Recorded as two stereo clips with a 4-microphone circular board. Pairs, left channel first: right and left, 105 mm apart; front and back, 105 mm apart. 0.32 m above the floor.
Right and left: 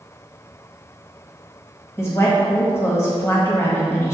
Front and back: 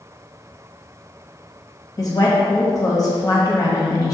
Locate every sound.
2.0 s a woman speaking: 35° right, 1.5 m